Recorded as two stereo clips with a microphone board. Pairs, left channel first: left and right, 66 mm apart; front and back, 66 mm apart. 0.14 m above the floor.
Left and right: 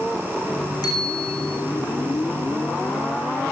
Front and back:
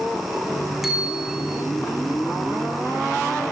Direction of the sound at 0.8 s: 95° left.